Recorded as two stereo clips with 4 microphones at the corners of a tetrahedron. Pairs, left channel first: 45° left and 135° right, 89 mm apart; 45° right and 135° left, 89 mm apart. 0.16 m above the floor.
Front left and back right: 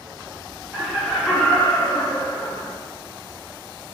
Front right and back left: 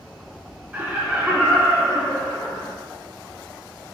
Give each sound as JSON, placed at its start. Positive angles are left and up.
{"t": 0.7, "sound": "laughter", "azimuth_deg": 165, "distance_m": 1.0}